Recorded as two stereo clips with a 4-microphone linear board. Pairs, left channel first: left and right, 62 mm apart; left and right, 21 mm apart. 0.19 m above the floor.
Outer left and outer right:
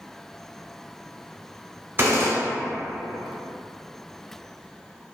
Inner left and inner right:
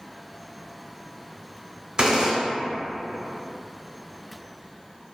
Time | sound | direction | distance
2.0 | a gunshot | 35° right (ahead or behind) | 0.8 m